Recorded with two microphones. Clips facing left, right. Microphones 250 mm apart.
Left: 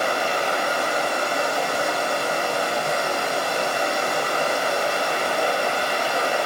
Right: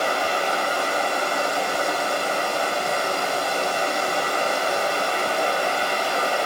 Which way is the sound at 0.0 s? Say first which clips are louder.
Even; 20° left (ahead or behind).